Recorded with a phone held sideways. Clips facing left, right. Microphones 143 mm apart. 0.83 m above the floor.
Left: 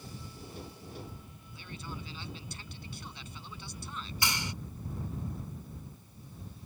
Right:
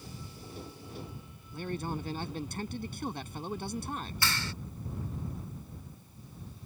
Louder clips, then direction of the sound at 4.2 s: Left 2 dB; 15° left (ahead or behind).